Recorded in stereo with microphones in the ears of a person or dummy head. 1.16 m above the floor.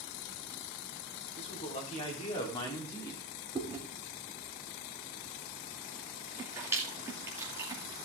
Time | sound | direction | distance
1.4 | a man speaking | 40° left (ahead or behind) | 4 m
3.5 | chewing | 15° right (ahead or behind) | 2.5 m